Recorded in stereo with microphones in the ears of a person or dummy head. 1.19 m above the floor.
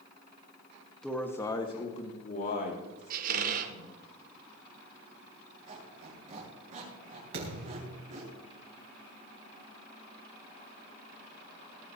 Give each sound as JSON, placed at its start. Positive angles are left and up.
{"t": 1.0, "sound": "a man speaking", "side_deg": 5, "distance_m": 1.5}
{"t": 3.1, "sound": "a squeak", "side_deg": -50, "distance_m": 1.3}
{"t": 5.7, "sound": "a squeak", "side_deg": -35, "distance_m": 6.5}
{"t": 7.3, "sound": "a thud", "side_deg": -80, "distance_m": 3.5}